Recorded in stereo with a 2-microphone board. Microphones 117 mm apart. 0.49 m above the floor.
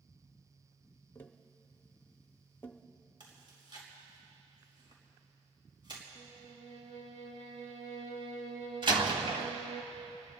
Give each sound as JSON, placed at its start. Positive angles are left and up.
{"t": 1.1, "sound": "tapping", "side_deg": 20, "distance_m": 0.8}
{"t": 3.2, "sound": "chewing", "side_deg": -40, "distance_m": 4.5}
{"t": 6.2, "sound": "a violin", "side_deg": -65, "distance_m": 2.0}
{"t": 8.8, "sound": "a door slam", "side_deg": -45, "distance_m": 1.7}